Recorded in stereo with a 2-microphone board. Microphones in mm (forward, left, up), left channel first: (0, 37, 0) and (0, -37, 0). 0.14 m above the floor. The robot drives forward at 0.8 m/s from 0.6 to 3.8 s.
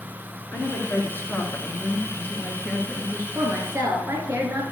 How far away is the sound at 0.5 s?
About 1.5 m.